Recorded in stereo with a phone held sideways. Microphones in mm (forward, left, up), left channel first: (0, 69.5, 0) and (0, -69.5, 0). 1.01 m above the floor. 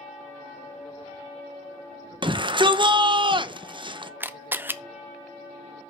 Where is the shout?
35° right (ahead or behind), 0.8 m.